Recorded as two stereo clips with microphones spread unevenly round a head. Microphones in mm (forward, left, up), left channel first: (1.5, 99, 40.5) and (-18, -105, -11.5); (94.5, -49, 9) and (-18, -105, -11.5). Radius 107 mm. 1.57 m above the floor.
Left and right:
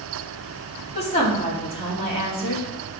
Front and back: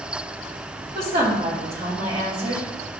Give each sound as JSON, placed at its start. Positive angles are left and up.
{"t": 0.9, "sound": "a woman speaking", "azimuth_deg": 145, "distance_m": 3.5}